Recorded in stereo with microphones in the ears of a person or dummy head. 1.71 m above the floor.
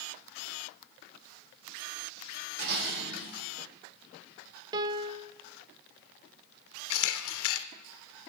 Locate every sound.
2.6 s dishes clattering: 60° right (ahead or behind), 5 m
4.7 s a piano: 25° right (ahead or behind), 0.6 m
6.9 s a camera shutter: 70° left (ahead or behind), 0.6 m